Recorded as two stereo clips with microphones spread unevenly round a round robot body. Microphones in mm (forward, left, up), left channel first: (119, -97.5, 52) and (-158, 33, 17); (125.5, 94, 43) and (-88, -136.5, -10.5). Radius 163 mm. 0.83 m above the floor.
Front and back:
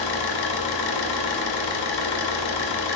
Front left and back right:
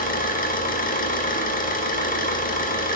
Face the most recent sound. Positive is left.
turn(degrees=-20)